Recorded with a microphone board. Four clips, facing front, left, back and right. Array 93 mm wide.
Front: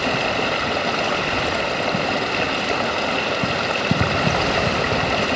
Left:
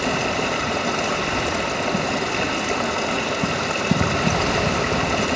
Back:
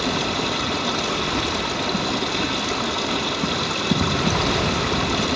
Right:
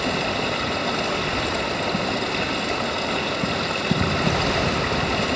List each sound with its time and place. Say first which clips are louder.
0.0 s running water: left 2 dB, front 2 dB; 15° left, 1.5 m